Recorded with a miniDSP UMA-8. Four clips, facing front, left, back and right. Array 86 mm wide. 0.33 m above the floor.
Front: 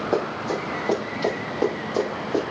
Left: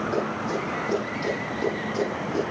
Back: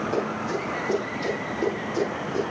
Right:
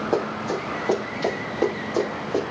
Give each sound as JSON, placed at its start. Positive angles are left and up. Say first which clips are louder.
{"t": 0.1, "sound": "running footsteps", "louder": "right 2 dB, front 5 dB", "azimuth_deg": -50, "distance_m": 9.5}